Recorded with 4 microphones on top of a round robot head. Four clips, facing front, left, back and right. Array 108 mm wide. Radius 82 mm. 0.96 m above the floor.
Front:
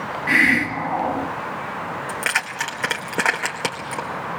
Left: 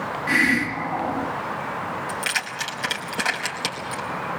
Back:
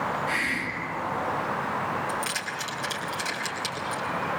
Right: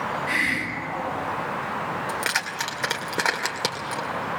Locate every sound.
0.3 s a hiss: 15° left, 1.7 m
2.1 s keys jangling: 30° right, 2.5 m